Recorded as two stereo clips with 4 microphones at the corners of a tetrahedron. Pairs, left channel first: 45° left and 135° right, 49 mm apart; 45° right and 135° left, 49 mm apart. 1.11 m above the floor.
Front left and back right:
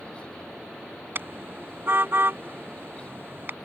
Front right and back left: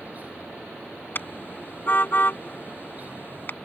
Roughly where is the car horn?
Right.